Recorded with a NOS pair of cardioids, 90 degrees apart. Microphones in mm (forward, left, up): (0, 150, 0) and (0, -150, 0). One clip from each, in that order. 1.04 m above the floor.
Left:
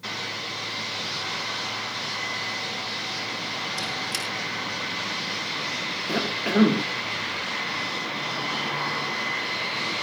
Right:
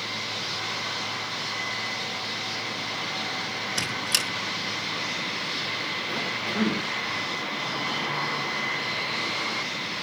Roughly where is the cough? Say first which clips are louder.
Left 3 dB; ahead left.